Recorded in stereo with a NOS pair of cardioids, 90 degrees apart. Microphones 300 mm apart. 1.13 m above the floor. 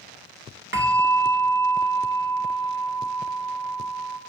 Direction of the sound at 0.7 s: 40° right.